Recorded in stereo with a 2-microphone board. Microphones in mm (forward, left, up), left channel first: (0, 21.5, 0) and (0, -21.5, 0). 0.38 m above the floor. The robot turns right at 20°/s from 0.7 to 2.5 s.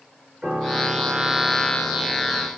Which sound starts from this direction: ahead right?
A piano, at 0.4 s.